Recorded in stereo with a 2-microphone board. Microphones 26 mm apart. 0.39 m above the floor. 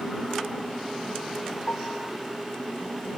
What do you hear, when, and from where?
1.7 s a piano: 80° left